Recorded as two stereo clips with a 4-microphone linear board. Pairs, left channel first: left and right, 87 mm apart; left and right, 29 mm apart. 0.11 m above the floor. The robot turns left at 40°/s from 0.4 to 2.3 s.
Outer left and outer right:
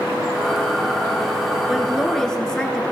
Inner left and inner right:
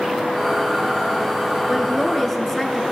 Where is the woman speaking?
5° right (ahead or behind), 1.3 m; by 2.8 s 5° left (ahead or behind), 1.3 m.